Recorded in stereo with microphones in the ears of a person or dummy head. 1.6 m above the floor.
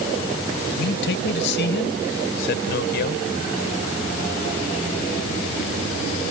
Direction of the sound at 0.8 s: 70° left (ahead or behind).